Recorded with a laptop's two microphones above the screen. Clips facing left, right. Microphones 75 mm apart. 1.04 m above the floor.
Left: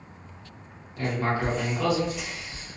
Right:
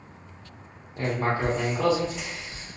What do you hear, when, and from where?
1.0 s writing: 30° right (ahead or behind), 1.1 m